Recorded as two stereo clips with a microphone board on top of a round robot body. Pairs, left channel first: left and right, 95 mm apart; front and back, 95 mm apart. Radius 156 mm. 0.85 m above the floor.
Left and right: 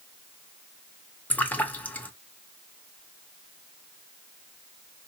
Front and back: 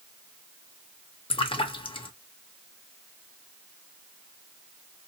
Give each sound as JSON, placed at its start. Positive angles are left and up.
{"t": 1.3, "sound": "a splash", "azimuth_deg": 15, "distance_m": 0.9}